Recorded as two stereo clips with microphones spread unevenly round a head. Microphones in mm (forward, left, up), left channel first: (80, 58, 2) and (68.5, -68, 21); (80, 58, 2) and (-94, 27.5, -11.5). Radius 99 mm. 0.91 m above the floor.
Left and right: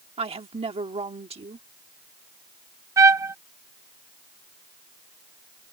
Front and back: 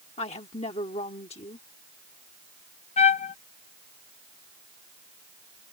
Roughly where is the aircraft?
I don't hear an aircraft.